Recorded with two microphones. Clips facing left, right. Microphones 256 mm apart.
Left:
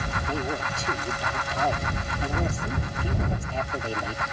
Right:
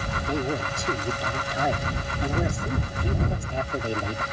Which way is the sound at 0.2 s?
15° right (ahead or behind).